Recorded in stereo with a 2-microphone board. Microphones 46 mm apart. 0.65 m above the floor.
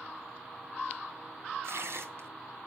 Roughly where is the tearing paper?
Right.